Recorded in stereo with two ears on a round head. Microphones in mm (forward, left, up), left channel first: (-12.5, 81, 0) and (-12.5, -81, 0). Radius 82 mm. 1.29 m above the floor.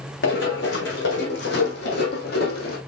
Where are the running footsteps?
70° left (ahead or behind), 3.5 m; by 2.8 s 55° left (ahead or behind), 2.5 m.